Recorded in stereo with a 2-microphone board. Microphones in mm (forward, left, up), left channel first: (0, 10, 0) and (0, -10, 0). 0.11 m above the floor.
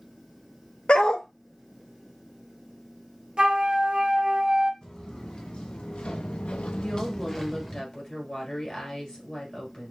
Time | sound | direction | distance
0.9 | a dog barking | 60° left (ahead or behind) | 0.6 m
3.4 | a flute | 40° right (ahead or behind) | 0.9 m
4.8 | footsteps | 45° left (ahead or behind) | 1.8 m
6.8 | a woman speaking | 40° left (ahead or behind) | 2 m